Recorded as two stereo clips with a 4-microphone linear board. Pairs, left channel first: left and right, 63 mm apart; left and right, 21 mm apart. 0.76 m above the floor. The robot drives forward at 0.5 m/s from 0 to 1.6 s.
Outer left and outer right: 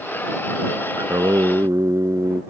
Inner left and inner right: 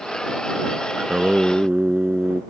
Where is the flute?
I don't hear a flute.